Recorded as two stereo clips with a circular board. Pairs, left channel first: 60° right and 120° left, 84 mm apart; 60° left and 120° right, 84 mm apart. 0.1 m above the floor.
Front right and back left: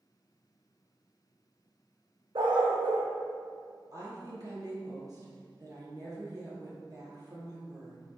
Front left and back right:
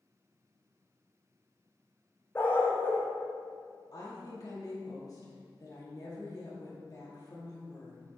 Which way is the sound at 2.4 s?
125° left.